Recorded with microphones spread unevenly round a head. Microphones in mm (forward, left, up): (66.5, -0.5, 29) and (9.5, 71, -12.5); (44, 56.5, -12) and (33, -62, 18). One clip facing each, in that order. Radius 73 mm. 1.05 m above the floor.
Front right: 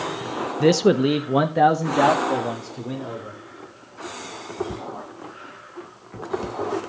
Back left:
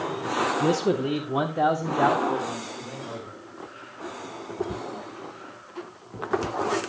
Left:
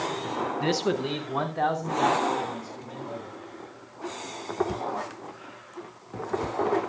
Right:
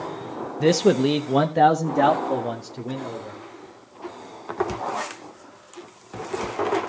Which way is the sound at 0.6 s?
45° right.